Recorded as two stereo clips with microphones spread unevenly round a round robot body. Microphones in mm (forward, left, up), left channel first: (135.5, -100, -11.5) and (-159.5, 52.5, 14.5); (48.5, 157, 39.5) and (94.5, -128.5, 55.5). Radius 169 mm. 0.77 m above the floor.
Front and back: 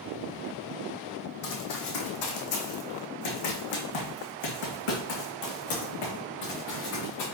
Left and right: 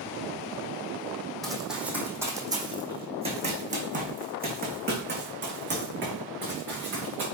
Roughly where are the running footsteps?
Ahead.